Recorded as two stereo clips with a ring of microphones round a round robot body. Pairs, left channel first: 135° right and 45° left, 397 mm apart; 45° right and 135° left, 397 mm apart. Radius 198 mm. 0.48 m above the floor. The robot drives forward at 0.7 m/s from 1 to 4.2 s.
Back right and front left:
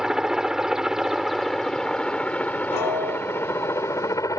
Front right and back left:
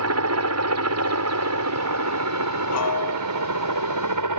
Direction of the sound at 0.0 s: 135° left.